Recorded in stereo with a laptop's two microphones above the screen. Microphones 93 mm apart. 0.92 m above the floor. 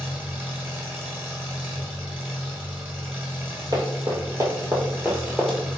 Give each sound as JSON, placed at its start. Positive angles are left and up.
{"t": 0.0, "sound": "an engine running", "side_deg": -20, "distance_m": 1.6}
{"t": 3.7, "sound": "running footsteps", "side_deg": -45, "distance_m": 1.3}